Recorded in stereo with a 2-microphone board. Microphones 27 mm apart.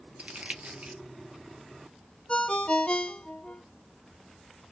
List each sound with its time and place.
0.2 s crumpling: 50° right (ahead or behind), 0.5 m
2.3 s a ringtone: 35° left (ahead or behind), 0.5 m